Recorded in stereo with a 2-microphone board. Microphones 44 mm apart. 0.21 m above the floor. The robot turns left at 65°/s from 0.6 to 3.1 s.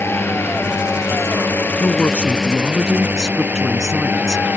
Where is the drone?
115° left; by 4.6 s 45° right.